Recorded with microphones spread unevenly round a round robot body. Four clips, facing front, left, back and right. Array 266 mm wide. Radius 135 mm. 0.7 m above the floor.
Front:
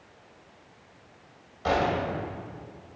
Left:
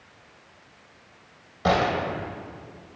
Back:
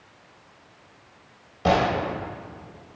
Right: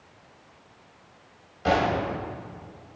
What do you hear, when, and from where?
1.6 s a gunshot: 145° left, 2.5 m